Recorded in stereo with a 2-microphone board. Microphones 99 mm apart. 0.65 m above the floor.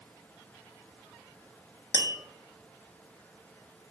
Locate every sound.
1.9 s tapping: 45° left (ahead or behind), 0.7 m